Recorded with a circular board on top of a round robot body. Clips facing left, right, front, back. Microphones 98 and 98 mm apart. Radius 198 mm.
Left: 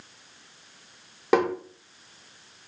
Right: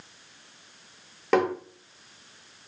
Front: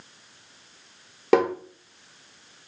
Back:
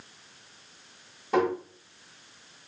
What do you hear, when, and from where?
1.3 s tapping: 10° left, 1.4 m